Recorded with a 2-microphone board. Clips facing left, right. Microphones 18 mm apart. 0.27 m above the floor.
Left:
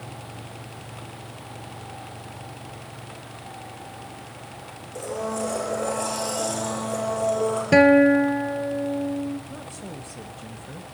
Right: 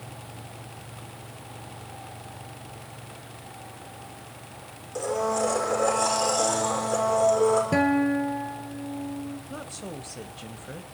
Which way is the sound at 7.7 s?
45° left (ahead or behind).